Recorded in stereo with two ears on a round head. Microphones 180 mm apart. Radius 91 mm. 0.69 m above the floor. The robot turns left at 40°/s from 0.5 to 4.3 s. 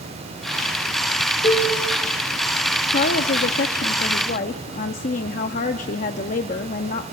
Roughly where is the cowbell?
Left.